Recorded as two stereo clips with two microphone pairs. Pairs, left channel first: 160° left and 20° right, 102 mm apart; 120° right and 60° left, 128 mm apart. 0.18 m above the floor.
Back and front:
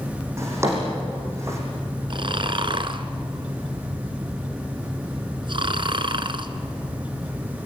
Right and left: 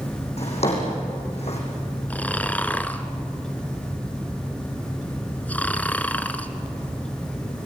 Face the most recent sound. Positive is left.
turn(degrees=-40)